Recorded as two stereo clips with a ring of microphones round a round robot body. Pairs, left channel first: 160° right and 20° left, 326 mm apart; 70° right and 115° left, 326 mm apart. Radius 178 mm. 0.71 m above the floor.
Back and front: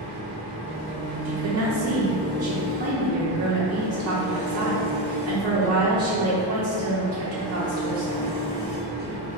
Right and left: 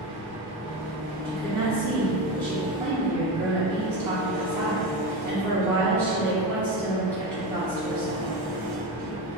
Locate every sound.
0.0 s an engine running: 90° left, 0.8 m
1.2 s a woman speaking: 40° left, 0.6 m